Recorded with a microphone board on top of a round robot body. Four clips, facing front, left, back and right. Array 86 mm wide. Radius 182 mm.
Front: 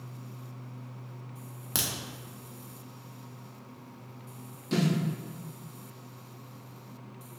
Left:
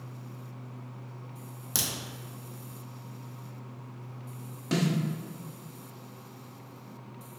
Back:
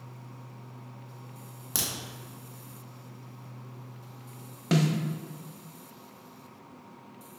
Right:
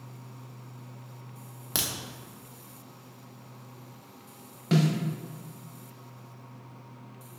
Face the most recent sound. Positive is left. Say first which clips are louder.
# right 3 dB, back 2 dB
turn(degrees=-170)